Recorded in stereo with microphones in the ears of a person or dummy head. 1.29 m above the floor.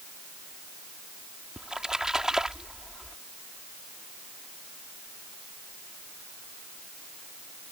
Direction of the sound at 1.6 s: Centre (ahead or behind).